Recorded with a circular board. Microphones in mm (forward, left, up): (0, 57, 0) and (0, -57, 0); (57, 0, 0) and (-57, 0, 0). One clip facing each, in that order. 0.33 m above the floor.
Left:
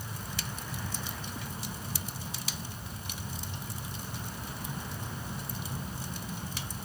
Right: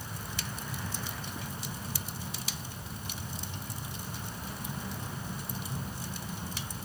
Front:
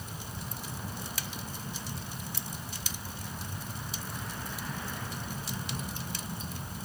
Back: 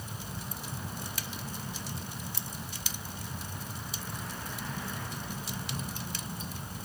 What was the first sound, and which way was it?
Only background noise.